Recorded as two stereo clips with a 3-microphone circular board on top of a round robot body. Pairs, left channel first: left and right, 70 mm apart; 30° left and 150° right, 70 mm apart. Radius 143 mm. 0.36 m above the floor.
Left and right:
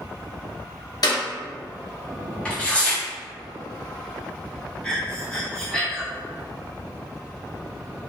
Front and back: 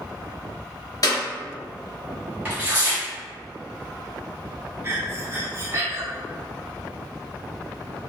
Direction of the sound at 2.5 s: 160° left.